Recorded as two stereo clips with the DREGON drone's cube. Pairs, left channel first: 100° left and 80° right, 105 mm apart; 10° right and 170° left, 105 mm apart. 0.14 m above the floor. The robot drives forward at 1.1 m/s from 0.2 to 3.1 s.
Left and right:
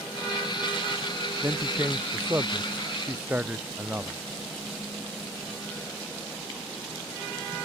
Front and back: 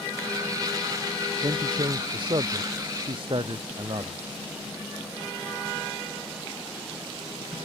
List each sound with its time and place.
1.4 s a man speaking: 145° right; by 4.2 s 150° right